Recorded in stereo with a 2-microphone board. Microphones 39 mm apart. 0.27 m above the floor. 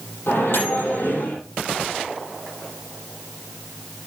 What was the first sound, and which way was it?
A microwave, 80° left.